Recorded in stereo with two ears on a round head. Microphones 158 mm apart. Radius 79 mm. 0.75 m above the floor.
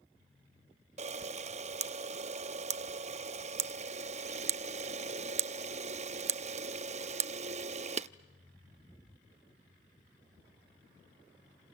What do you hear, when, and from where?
1.0 s a camera shutter: 40° right (ahead or behind), 0.6 m